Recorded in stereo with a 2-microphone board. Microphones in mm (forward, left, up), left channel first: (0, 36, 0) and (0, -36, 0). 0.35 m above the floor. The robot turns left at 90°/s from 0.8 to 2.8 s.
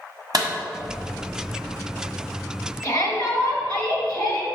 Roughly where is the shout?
Left.